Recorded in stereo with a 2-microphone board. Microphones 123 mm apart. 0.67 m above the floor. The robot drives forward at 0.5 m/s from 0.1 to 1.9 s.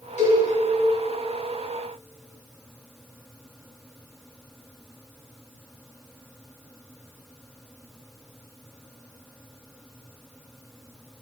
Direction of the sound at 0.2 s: 80° left.